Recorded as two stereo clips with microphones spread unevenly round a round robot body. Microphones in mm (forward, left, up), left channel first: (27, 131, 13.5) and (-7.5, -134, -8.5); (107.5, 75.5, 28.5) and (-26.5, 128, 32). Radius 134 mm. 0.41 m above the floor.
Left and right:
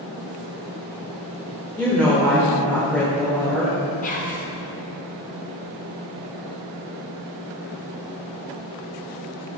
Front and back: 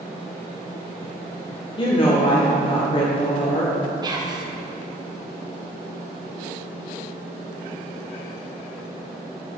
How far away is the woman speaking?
About 0.9 m.